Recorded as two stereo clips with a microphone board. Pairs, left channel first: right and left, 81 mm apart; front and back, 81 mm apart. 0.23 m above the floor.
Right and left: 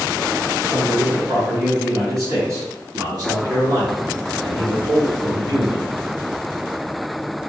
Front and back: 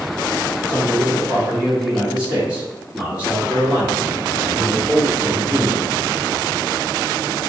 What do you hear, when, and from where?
0.7 s a man speaking: 130° left, 1.6 m; by 5.9 s 100° left, 3.5 m